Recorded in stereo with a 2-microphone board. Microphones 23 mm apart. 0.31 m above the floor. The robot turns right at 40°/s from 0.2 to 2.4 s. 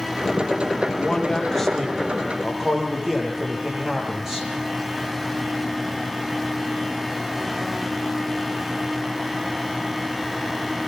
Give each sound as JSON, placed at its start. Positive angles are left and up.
{"t": 1.0, "sound": "a man speaking", "azimuth_deg": 145, "distance_m": 9.5}